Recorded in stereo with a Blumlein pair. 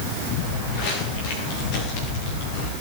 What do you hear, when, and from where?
0.4 s footsteps: 45° left, 5 m